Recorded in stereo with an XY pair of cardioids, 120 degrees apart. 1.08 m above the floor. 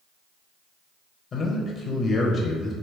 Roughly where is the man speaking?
Ahead left.